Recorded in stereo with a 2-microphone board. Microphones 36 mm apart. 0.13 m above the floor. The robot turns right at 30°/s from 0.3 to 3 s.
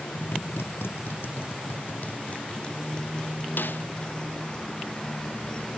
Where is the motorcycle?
75° left; by 5.8 s 155° left.